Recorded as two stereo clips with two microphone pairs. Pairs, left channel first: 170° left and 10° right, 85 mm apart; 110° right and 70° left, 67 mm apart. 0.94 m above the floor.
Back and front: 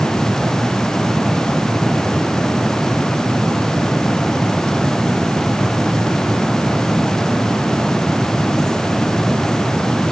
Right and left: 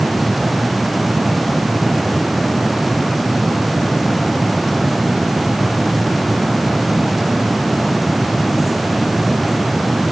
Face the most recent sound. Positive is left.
No sound to turn to.